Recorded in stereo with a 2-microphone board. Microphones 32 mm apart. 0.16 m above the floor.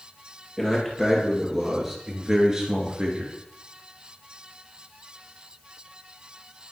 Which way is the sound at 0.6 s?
Centre (ahead or behind).